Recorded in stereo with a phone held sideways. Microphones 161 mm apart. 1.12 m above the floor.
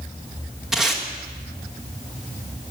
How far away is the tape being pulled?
About 1.4 m.